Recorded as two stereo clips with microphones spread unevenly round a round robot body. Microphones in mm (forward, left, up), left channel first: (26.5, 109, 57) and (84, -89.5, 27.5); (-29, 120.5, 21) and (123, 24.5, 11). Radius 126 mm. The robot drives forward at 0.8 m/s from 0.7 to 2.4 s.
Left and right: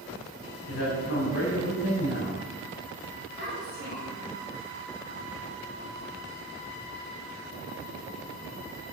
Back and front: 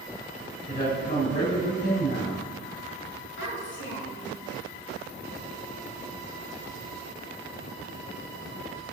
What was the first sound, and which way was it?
A woman speaking, 110° left.